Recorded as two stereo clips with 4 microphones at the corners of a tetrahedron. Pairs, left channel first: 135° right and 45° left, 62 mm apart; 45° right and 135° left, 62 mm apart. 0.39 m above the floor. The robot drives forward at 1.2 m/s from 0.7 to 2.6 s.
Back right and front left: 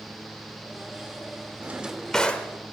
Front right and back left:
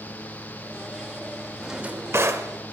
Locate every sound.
1.6 s a drawer: 50° left, 0.6 m; by 2.5 s 165° left, 1.1 m